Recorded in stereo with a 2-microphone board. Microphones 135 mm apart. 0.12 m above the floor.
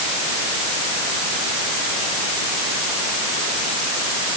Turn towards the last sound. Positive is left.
No sound to turn to.